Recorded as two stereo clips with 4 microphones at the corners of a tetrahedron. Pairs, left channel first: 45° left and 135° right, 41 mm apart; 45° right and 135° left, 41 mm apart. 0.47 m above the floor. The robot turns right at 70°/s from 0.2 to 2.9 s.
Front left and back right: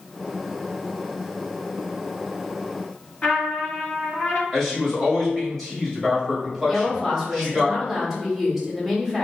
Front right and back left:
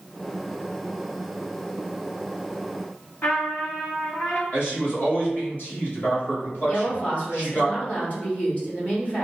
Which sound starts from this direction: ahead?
A trumpet, at 3.2 s.